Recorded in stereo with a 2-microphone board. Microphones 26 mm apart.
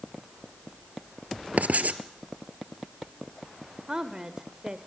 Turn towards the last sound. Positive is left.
turn(degrees=-30)  # may be behind; listen again after turning